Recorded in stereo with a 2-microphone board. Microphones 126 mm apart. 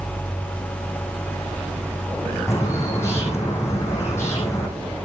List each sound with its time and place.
2.5 s a bird: 20° left (ahead or behind), 4 m